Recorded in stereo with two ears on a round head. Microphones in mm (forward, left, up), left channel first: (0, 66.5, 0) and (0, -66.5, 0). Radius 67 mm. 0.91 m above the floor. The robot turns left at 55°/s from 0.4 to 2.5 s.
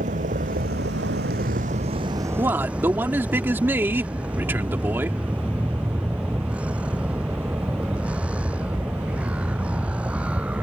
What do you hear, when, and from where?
0.0 s a vehicle: 55° right; by 10.6 s 170° right
2.4 s a man speaking: 20° right (ahead or behind); by 5.2 s 15° right (ahead or behind)